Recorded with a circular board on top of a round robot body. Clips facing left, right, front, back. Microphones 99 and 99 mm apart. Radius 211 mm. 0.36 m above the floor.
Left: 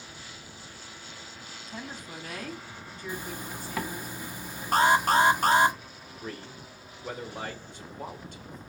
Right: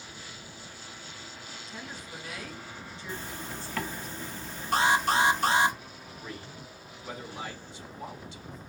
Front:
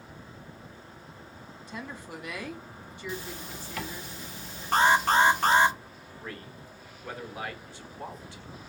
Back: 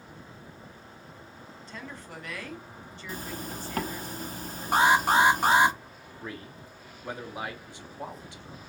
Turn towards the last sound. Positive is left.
turn(degrees=110)